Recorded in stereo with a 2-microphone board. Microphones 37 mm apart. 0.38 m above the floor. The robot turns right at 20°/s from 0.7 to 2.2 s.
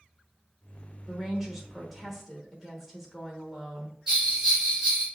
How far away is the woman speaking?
About 0.9 m.